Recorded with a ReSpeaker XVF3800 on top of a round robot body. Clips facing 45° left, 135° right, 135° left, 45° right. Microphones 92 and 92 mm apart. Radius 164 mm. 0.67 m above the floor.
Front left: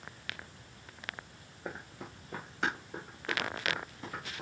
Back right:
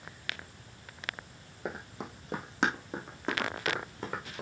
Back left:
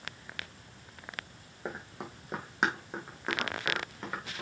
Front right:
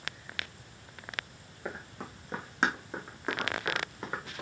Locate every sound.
1.6 s running footsteps: 155° right, 2.5 m; by 4.4 s 125° right, 4 m